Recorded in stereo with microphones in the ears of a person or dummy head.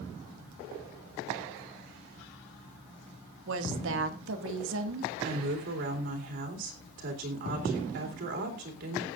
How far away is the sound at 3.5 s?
About 1.9 m.